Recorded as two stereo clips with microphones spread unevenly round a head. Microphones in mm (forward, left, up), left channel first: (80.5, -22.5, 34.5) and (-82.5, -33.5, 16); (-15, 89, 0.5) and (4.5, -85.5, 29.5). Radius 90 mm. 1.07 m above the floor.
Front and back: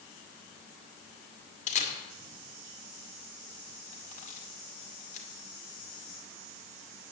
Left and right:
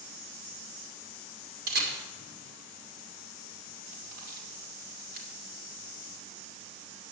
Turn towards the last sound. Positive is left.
turn(degrees=-40)